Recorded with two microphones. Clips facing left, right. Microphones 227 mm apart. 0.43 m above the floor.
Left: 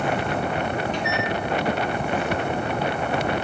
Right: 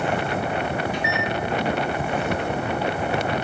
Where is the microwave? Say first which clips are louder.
Even; 10° right (ahead or behind), 0.7 m.